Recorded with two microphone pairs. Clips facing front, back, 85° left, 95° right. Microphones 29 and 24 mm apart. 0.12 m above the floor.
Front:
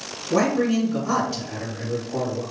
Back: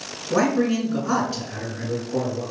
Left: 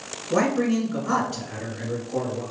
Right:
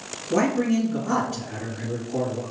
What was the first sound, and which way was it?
A man speaking, 135° left.